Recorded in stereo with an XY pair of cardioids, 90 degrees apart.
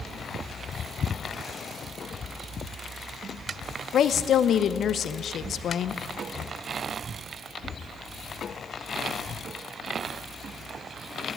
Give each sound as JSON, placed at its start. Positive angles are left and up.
{"t": 3.9, "sound": "a woman speaking", "azimuth_deg": 65, "distance_m": 0.6}